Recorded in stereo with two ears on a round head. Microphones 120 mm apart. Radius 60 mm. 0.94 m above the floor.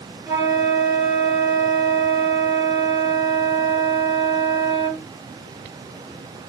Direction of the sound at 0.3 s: 30° right (ahead or behind).